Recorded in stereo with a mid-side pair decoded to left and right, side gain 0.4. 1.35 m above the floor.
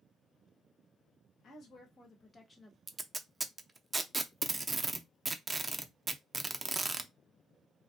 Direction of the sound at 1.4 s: 65° left.